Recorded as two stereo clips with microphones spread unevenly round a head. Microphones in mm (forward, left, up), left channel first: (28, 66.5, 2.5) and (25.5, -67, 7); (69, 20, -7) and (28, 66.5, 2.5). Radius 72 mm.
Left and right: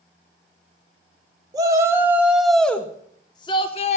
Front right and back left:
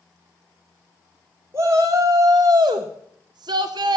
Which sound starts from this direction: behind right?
A shout, at 1.5 s.